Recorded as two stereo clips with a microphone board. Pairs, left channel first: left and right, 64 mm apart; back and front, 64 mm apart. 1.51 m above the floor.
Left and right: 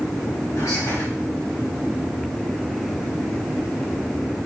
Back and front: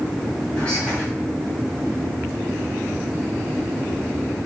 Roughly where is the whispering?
Left.